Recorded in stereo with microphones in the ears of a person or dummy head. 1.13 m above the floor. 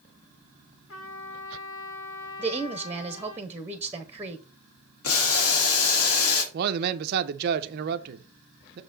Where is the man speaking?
55° right (ahead or behind), 0.5 m.